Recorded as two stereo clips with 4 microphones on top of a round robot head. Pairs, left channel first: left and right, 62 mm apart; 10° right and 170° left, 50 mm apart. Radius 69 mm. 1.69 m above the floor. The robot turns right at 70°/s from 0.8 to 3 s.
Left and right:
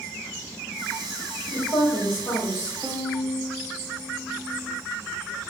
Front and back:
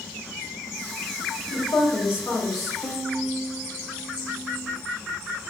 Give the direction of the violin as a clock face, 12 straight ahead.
3 o'clock.